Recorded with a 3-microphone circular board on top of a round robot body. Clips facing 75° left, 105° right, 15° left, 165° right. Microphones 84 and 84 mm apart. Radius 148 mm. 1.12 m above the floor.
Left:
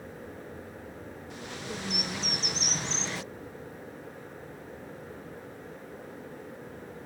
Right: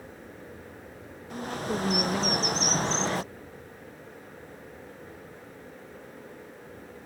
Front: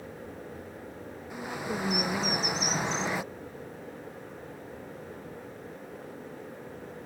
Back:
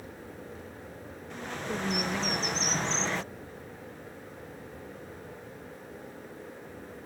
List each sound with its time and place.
1.3 s a bird: 65° right